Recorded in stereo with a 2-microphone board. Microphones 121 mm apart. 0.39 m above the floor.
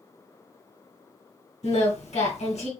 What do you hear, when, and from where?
1.6 s singing: 70° left (ahead or behind), 2.5 m